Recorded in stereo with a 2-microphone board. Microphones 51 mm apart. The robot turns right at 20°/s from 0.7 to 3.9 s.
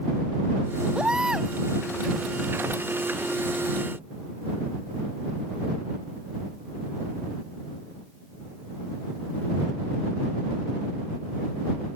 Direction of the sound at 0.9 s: 15° right (ahead or behind).